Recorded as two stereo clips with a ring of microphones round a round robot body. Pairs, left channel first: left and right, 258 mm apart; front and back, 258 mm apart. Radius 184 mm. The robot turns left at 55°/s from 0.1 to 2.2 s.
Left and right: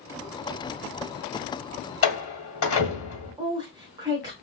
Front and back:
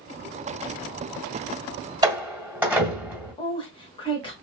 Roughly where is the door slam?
Left.